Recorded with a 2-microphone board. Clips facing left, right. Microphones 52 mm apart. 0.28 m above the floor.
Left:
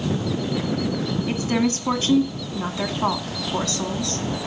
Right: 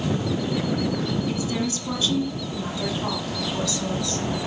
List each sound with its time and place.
1.3 s a woman speaking: 45° left (ahead or behind), 2 m